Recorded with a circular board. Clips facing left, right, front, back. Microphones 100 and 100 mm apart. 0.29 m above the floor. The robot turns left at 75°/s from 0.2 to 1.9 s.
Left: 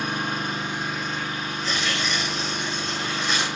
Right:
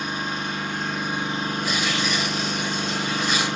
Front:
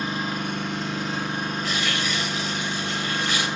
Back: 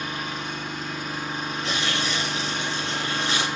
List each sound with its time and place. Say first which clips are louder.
0.0 s an engine running: left 1 dB, front 4 dB; 60° left, 2.5 m; by 3.6 s 70° right, 2.5 m
1.6 s tearing paper: even, even; 155° right, 1.2 m; by 3.5 s 175° right, 1.2 m